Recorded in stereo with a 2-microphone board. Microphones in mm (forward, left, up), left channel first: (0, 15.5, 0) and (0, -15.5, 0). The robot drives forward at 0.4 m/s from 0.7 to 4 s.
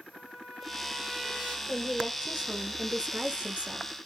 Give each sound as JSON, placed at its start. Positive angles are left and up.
{"t": 0.1, "sound": "a trumpet", "side_deg": 5, "distance_m": 1.7}
{"t": 1.7, "sound": "a woman speaking", "side_deg": -30, "distance_m": 1.1}